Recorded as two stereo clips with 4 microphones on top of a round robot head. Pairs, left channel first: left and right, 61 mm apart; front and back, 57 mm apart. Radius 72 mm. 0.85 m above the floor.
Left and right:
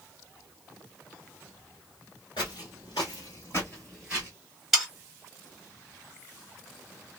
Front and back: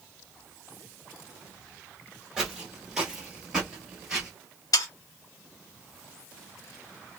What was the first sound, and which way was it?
Footsteps, 105° left.